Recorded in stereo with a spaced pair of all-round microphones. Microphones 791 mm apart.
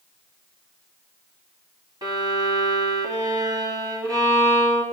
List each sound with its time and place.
2.0 s a violin: 5° right (ahead or behind), 2 m